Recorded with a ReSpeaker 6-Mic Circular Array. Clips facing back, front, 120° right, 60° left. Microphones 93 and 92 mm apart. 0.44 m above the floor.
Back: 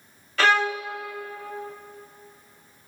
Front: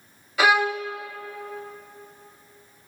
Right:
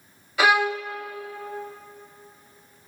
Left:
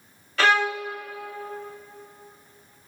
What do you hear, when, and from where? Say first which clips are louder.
0.4 s a violin: front 1 dB, right 1 dB; 60° right, 0.6 m